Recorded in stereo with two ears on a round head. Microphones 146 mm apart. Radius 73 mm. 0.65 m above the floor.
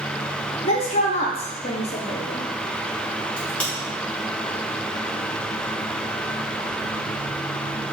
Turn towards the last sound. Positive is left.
turn(degrees=10)  # may be behind; listen again after turning